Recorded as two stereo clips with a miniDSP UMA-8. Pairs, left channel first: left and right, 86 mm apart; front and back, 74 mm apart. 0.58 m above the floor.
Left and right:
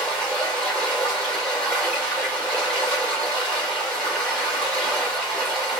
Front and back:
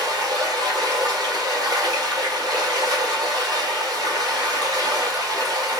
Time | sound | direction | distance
0.0 | running water | 170° left | 2.5 m